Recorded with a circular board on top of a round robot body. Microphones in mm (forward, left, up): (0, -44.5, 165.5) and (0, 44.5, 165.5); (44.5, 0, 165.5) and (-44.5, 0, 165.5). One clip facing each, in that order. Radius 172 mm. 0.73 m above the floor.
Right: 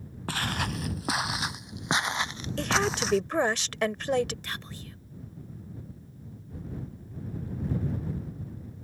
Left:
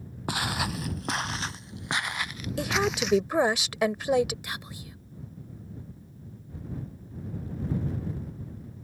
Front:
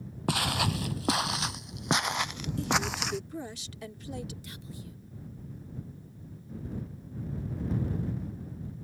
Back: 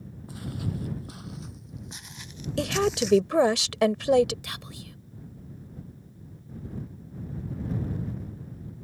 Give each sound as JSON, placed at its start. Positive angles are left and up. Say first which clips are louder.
{"t": 0.3, "sound": "footsteps", "louder": "left 1 dB, front 6 dB", "azimuth_deg": 15}
{"t": 2.6, "sound": "a woman speaking", "louder": "even, back 6 dB", "azimuth_deg": 170}
{"t": 4.4, "sound": "whispering", "louder": "left 1 dB, back 3 dB", "azimuth_deg": 170}